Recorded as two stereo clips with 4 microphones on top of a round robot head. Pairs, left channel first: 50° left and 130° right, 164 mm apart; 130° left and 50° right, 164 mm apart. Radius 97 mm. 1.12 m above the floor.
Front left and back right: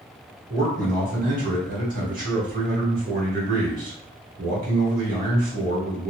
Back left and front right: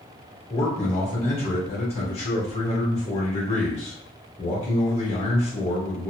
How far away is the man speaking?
About 1.4 m.